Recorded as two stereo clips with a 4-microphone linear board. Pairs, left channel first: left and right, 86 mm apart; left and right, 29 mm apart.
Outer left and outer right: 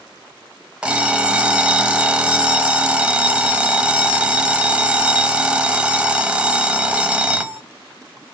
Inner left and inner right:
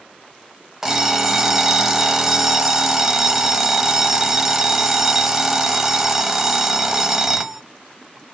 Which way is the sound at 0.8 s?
15° right (ahead or behind).